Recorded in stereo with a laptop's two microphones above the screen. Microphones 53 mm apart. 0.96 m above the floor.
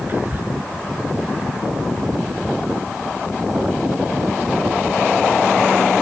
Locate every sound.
0.1 s whispering: 35° right (ahead or behind)